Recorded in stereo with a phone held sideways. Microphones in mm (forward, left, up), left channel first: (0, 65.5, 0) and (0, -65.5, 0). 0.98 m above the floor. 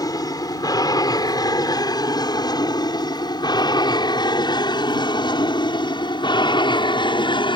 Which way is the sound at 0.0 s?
30° left (ahead or behind).